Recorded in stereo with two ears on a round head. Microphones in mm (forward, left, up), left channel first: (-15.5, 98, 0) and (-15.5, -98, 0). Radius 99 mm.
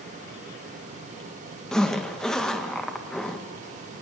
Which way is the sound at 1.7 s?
5° left (ahead or behind).